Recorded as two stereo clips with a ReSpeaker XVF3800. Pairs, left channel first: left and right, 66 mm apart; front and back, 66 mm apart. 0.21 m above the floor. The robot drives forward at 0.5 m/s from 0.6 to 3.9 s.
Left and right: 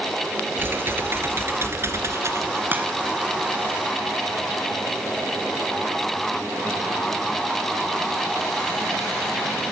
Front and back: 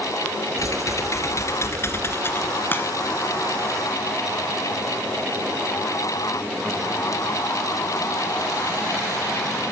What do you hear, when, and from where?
0.6 s typing on a keyboard: 35° right, 2.5 m; by 2.6 s 55° right, 1.7 m
2.7 s a crack: 40° right, 2.5 m; by 2.9 s 45° right, 2.5 m